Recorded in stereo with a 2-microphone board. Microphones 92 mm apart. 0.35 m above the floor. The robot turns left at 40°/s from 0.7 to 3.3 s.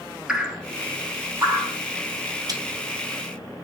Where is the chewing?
45° right (ahead or behind), 1.5 m; by 2.6 s 40° right (ahead or behind), 1.5 m.